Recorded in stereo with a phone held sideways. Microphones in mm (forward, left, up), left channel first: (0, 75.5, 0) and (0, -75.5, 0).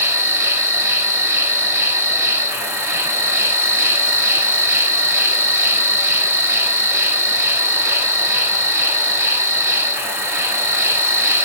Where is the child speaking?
No child speaking in this recording.